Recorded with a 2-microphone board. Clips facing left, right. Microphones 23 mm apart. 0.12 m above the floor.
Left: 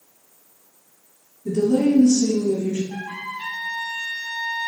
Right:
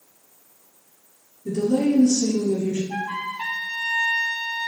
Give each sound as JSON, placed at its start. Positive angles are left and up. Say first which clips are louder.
{"t": 1.4, "sound": "a woman speaking", "louder": "left 2 dB", "side_deg": 0, "distance_m": 1.9}
{"t": 2.9, "sound": "a trumpet", "louder": "right 3 dB", "side_deg": -45, "distance_m": 1.0}